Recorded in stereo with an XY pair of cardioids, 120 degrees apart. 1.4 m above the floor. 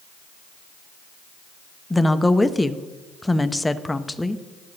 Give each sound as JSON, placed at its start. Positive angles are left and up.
{"t": 1.9, "sound": "a woman speaking", "azimuth_deg": 10, "distance_m": 0.6}